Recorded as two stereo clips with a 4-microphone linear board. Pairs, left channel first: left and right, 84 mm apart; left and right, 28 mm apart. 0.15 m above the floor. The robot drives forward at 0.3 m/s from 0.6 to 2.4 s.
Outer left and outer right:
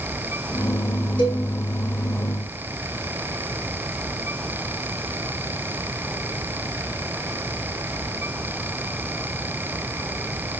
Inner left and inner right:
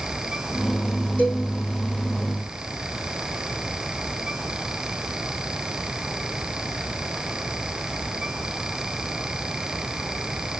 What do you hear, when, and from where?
1.2 s a cowbell: 70° left (ahead or behind), 5.5 m